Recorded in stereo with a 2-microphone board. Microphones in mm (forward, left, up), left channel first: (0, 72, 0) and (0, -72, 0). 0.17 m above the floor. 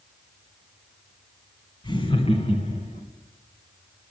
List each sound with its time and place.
1.8 s laughter: 30° left (ahead or behind), 1.4 m; by 3.0 s 50° left (ahead or behind), 2 m